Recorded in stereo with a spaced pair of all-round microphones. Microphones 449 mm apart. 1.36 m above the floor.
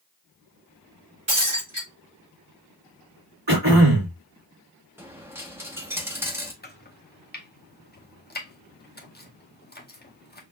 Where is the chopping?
20° left (ahead or behind), 0.7 m.